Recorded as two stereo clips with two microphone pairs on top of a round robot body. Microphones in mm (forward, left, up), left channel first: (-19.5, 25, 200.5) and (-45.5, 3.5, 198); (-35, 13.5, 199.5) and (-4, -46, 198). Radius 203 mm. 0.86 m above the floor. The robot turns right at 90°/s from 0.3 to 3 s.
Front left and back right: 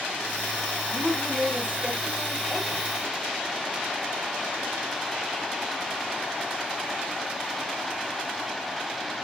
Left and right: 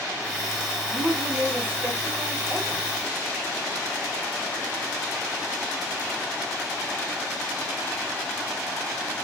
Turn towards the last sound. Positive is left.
turn(degrees=-5)